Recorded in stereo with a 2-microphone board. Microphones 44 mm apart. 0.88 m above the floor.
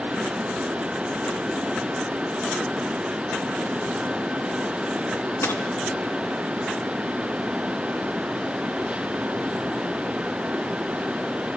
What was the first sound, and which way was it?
A dropped coin, 80° left.